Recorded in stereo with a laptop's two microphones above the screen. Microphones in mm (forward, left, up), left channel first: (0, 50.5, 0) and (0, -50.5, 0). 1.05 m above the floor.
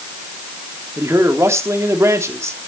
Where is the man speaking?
25° right (ahead or behind), 3 m.